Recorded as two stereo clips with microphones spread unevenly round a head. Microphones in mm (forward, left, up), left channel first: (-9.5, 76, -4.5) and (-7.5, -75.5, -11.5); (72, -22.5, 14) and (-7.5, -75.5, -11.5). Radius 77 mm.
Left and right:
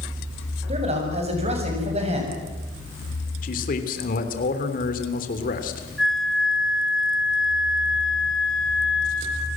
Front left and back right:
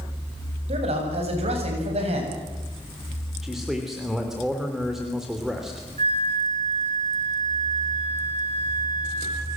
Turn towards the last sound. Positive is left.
turn(degrees=-175)